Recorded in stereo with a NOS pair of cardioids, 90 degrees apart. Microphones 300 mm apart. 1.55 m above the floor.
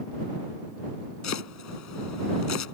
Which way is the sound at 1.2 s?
65° left.